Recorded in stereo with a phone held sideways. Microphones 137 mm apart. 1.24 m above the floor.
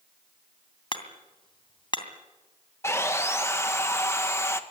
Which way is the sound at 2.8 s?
20° left (ahead or behind).